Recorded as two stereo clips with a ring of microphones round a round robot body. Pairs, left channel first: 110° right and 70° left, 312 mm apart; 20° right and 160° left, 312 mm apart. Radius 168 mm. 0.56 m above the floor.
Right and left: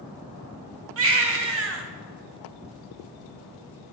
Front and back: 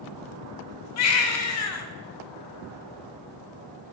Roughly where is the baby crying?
Ahead.